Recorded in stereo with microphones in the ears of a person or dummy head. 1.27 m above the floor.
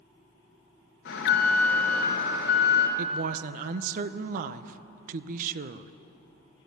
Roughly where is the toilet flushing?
No toilet flushing in this recording.